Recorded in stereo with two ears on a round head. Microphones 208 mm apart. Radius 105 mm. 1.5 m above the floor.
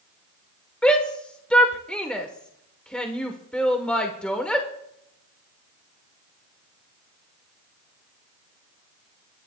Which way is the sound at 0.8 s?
5° left (ahead or behind).